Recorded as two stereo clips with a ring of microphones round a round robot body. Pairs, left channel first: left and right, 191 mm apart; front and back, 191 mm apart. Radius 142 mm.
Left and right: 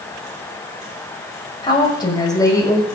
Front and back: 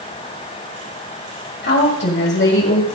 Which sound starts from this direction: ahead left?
A woman speaking, at 1.6 s.